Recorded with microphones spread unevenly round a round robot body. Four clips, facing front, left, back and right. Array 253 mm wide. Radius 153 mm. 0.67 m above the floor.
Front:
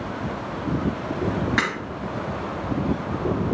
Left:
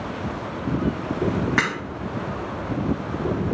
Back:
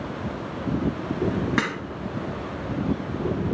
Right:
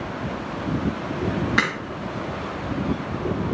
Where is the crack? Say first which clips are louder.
Even, front 1 dB; 150° left, 2 m.